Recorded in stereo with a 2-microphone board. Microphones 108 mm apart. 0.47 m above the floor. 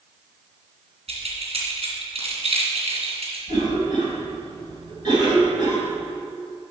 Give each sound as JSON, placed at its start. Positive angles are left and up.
{"t": 1.1, "sound": "keys jangling", "side_deg": -70, "distance_m": 3.0}
{"t": 3.5, "sound": "a cough", "side_deg": -45, "distance_m": 3.0}